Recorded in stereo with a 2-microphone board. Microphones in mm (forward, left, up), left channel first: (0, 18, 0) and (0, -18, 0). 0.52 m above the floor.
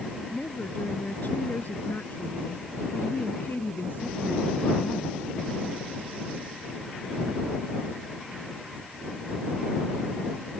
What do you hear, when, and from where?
0.3 s a woman speaking: 50° left (ahead or behind); by 5.2 s 65° left (ahead or behind)